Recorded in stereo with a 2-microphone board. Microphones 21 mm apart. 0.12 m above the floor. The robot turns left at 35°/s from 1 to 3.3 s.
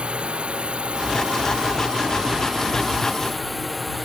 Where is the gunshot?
I don't hear a gunshot.